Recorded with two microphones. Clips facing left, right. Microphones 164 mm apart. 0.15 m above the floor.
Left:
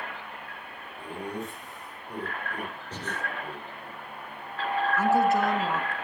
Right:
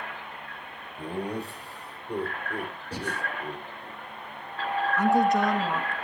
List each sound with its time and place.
1.0 s laughter: 40° right (ahead or behind), 5.5 m; by 3.9 s 20° right (ahead or behind), 6.5 m
2.9 s breathing: 10° right (ahead or behind), 3.5 m
5.0 s a woman speaking: 5° left (ahead or behind), 2.0 m